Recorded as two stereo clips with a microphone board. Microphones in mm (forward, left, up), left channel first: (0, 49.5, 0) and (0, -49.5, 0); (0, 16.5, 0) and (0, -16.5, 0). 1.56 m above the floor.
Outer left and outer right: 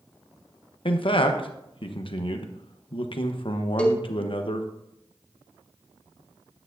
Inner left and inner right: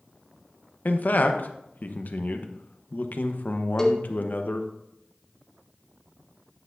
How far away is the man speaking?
About 1.0 m.